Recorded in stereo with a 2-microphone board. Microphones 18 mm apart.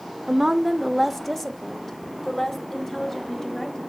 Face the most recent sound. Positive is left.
turn(degrees=25)  # may be behind; listen again after turning